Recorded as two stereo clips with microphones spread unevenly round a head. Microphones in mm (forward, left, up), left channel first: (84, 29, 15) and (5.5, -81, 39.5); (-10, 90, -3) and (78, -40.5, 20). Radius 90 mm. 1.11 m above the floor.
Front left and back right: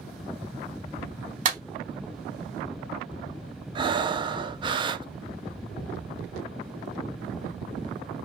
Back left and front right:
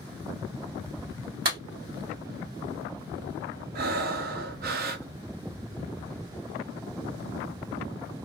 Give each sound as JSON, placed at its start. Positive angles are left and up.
{"t": 1.4, "sound": "a clap", "azimuth_deg": -100, "distance_m": 2.0}
{"t": 3.8, "sound": "breathing", "azimuth_deg": -70, "distance_m": 0.6}